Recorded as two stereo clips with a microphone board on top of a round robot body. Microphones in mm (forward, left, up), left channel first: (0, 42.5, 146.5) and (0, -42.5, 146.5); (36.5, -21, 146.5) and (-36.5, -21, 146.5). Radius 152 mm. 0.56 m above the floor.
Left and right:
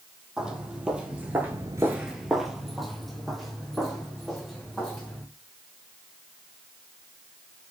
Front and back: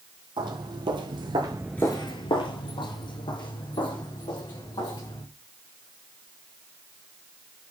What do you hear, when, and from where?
0.4 s footsteps: 175° right, 1.8 m; by 5.2 s straight ahead, 4.5 m